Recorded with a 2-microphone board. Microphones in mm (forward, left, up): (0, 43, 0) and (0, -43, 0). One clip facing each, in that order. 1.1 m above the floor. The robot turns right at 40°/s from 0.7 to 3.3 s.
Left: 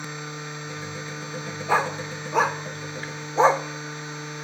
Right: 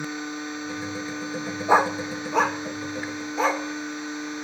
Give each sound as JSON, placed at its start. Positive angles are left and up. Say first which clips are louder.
{"t": 1.7, "sound": "a dog barking", "louder": "right 4 dB", "side_deg": -20, "distance_m": 0.9}